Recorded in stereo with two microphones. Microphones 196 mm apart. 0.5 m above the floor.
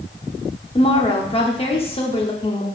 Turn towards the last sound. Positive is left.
turn(degrees=30)  # may be behind; listen again after turning